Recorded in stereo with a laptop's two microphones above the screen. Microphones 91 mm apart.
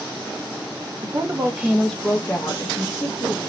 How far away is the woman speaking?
About 0.6 m.